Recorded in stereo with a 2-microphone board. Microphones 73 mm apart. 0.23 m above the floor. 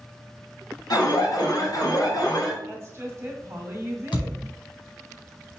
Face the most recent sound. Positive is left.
turn(degrees=85)